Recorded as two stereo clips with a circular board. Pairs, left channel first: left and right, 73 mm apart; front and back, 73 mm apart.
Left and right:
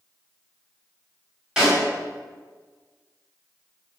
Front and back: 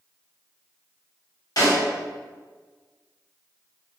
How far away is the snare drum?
About 1.8 m.